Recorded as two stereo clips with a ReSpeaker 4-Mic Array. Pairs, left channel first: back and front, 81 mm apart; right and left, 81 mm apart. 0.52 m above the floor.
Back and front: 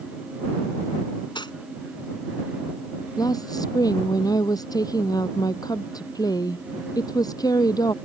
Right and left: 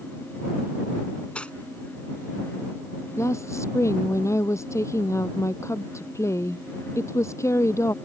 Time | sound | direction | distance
1.4 | cutlery clinking | 165° right | ?
3.2 | a woman speaking | 140° right | ?